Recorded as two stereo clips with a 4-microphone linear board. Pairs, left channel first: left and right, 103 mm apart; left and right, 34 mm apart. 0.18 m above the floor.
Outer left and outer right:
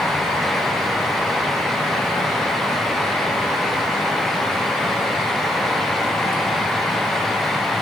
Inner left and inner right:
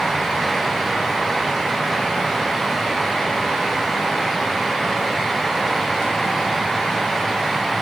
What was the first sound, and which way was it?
Only background noise.